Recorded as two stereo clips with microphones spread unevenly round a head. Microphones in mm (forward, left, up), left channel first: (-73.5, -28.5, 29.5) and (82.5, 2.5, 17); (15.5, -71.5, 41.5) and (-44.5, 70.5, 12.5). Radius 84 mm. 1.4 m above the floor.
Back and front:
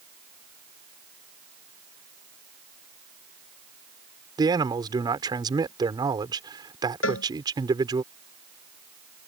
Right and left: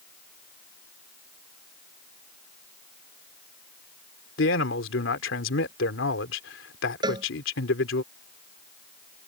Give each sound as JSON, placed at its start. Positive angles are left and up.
{"t": 4.4, "sound": "a man speaking", "azimuth_deg": -55}
{"t": 7.0, "sound": "a cowbell", "azimuth_deg": 180}